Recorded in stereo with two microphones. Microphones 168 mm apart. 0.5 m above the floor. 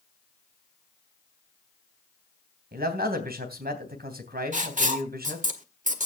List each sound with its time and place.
2.7 s a man speaking: 70° right (ahead or behind), 3 m
4.5 s writing: 50° right (ahead or behind), 1.5 m